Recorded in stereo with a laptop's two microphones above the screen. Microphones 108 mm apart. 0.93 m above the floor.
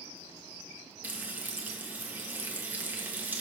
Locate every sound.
1.0 s frying: 15° right (ahead or behind), 1.4 m